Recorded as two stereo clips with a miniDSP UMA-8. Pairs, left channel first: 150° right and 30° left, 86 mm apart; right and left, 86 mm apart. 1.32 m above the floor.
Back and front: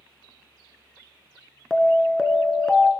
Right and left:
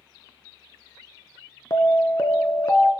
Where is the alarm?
60° right, 1.5 m.